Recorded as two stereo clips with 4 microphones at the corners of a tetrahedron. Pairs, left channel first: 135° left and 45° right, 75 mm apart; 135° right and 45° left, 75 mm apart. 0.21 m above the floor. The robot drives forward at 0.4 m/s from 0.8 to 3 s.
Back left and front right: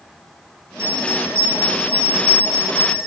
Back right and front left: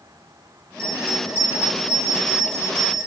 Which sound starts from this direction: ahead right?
A bell, at 0.8 s.